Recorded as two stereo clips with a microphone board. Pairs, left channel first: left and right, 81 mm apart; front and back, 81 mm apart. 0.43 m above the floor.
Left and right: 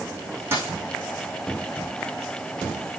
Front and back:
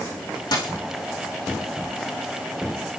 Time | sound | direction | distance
0.5 | a dropped coin | 30° right | 5 m